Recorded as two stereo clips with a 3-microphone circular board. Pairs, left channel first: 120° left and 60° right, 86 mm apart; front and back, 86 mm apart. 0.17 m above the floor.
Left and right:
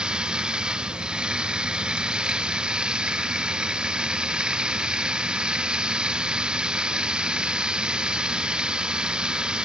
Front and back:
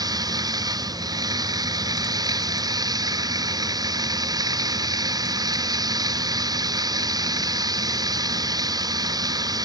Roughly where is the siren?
I don't hear a siren.